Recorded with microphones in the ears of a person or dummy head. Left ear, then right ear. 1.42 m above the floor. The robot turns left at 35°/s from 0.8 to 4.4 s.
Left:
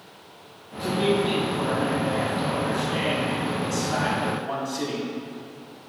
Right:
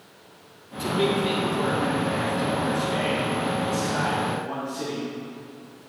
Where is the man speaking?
150° right, 3 m; by 5.1 s 85° left, 3 m.